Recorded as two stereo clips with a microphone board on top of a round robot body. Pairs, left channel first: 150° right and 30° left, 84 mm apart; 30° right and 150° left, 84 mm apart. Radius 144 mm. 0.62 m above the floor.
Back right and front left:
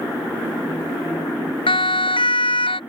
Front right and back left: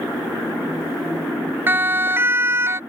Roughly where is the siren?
Behind right.